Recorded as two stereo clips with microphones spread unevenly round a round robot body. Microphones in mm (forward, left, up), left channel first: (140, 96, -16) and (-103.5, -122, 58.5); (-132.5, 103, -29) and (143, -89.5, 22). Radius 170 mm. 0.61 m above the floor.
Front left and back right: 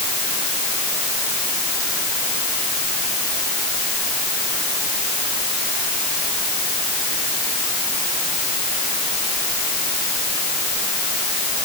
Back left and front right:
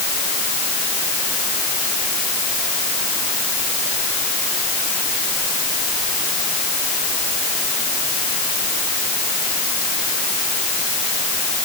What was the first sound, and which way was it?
Only background noise.